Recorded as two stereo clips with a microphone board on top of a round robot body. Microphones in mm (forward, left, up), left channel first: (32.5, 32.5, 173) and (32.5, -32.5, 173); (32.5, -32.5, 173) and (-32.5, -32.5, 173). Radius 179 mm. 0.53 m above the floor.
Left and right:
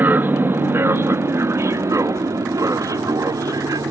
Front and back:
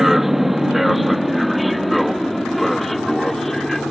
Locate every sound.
0.0 s an aircraft: 100° right; by 3.9 s 85° right